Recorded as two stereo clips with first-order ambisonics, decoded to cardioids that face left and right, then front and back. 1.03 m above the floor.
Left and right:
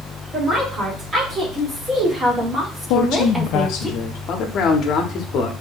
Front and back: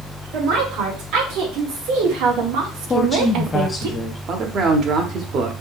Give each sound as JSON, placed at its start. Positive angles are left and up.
{"t": 0.3, "sound": "a woman speaking", "azimuth_deg": -155, "distance_m": 2.5}
{"t": 2.9, "sound": "a woman speaking", "azimuth_deg": 70, "distance_m": 0.5}
{"t": 4.3, "sound": "a man speaking", "azimuth_deg": 130, "distance_m": 1.0}